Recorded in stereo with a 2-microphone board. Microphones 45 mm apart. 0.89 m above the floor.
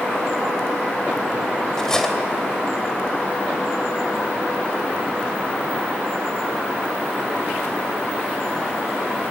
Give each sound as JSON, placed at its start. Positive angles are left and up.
{"t": 1.8, "sound": "cutlery clinking", "side_deg": 10, "distance_m": 2.5}